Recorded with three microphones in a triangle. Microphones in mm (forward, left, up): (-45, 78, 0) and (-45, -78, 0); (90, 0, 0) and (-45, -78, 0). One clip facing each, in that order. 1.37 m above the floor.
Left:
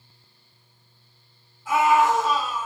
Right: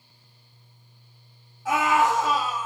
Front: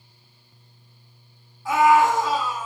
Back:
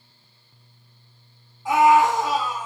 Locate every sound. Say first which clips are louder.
1.6 s a scream: left 3 dB, back 1 dB; 80° right, 2 m